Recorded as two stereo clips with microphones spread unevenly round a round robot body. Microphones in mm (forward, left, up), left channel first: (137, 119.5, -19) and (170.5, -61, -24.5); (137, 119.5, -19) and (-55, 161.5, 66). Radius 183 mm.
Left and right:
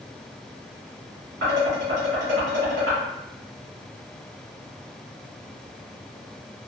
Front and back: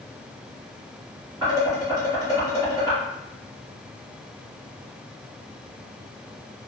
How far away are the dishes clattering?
About 1.8 m.